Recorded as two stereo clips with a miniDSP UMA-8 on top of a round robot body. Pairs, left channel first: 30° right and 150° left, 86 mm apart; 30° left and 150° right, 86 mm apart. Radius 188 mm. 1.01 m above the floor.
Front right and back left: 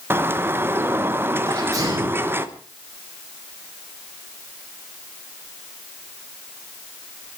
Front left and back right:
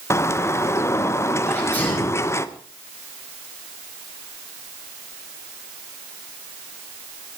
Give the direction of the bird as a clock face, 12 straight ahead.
9 o'clock.